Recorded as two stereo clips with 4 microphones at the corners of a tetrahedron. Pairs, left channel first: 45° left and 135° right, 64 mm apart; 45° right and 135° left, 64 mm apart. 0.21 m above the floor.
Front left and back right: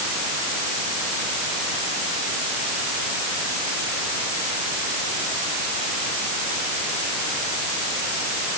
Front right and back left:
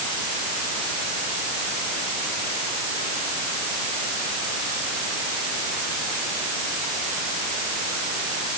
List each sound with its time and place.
Only background noise.